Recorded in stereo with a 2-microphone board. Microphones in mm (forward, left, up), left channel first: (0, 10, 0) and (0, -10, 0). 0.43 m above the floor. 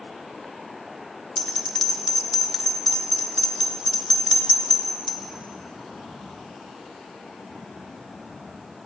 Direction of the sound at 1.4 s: 20° left (ahead or behind).